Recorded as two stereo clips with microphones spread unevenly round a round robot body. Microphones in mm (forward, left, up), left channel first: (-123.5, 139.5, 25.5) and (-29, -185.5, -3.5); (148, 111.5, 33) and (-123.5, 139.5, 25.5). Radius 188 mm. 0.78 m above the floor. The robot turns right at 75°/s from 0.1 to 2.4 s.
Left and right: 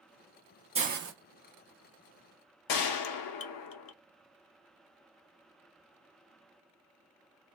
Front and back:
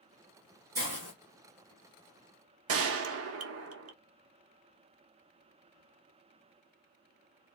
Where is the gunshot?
130° left, 0.6 m.